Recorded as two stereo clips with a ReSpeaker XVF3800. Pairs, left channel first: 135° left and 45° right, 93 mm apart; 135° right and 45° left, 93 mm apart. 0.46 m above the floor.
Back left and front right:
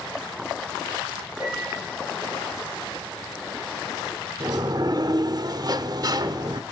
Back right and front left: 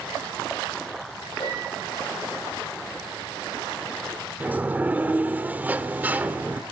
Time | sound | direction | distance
1.4 | a piano | 130° right | 9 m
4.4 | a sliding door | 20° right | 0.7 m